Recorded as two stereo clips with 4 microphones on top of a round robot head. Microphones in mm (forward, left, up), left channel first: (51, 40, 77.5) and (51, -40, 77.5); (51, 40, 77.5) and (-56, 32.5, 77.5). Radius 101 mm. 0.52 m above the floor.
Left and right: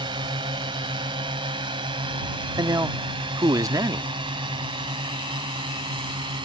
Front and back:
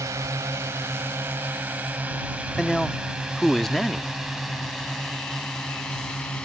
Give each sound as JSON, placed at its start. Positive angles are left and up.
{"t": 0.0, "sound": "a drone", "azimuth_deg": -110}
{"t": 2.6, "sound": "a man speaking", "azimuth_deg": -85}